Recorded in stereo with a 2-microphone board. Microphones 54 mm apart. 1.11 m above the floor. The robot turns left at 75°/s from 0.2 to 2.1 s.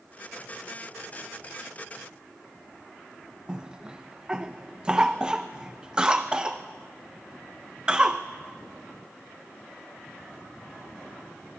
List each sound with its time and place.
3.5 s a cough: 20° right (ahead or behind), 0.7 m